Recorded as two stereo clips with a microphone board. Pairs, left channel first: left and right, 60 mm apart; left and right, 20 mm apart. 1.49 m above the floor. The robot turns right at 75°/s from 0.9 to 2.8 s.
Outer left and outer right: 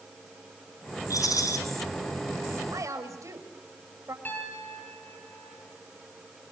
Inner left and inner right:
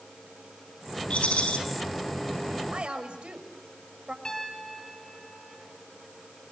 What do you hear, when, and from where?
1.1 s a rattle: 75° left, 4.5 m; by 1.6 s 110° left, 4.5 m
2.7 s a woman speaking: 70° right (ahead or behind), 6 m; by 4.2 s 60° right (ahead or behind), 6 m
4.2 s a piano: 35° left (ahead or behind), 7 m